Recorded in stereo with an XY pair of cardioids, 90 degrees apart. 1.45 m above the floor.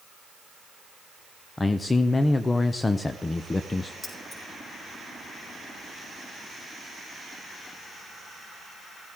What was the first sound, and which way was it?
A man speaking, 30° left.